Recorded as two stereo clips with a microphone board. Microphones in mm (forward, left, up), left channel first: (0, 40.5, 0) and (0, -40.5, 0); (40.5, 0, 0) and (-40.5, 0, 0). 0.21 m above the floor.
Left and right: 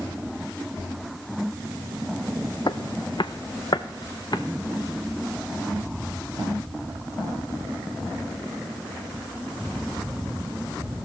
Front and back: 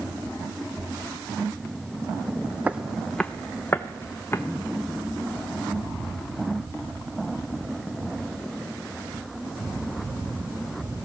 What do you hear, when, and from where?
2.7 s footsteps: 110° left, 0.6 m; by 4.4 s 60° left, 1.5 m